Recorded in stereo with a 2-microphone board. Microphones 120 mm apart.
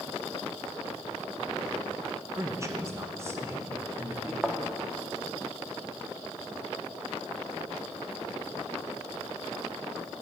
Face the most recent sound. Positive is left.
turn(degrees=-5)  # may be behind; listen again after turning